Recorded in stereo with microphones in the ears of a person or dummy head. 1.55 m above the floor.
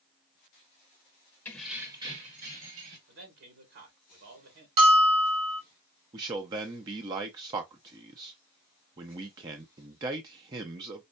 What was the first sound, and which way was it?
Keys jangling, 15° left (ahead or behind).